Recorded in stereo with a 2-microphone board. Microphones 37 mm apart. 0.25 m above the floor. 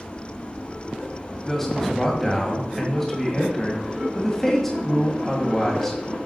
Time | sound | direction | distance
1.5 | a man speaking | 10° left (ahead or behind) | 1.8 m